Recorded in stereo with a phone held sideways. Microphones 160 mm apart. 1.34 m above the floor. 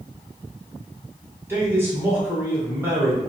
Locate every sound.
1.5 s a man speaking: 15° right (ahead or behind), 1.2 m